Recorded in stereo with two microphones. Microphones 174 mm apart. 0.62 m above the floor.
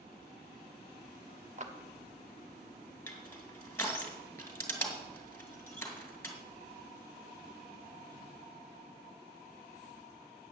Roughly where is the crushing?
Centre.